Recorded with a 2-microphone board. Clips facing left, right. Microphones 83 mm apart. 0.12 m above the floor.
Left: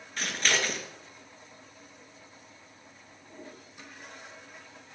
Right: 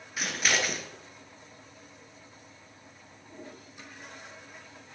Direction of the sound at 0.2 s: 5° right (ahead or behind).